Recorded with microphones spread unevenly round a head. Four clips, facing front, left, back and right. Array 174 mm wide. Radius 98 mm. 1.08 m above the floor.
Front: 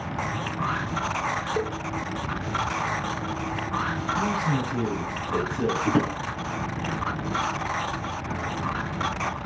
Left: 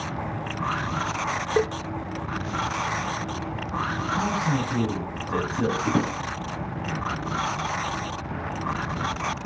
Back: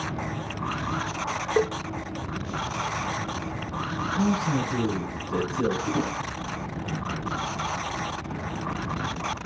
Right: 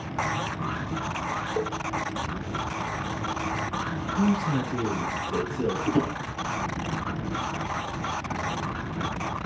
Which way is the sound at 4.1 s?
65° left.